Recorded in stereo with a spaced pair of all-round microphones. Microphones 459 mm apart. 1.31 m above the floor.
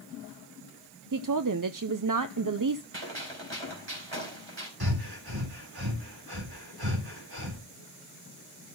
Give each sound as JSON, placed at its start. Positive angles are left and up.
{"t": 1.1, "sound": "a woman speaking", "side_deg": -45, "distance_m": 0.5}
{"t": 2.9, "sound": "a gunshot", "side_deg": -80, "distance_m": 3.5}
{"t": 4.8, "sound": "breathing", "side_deg": -55, "distance_m": 3.0}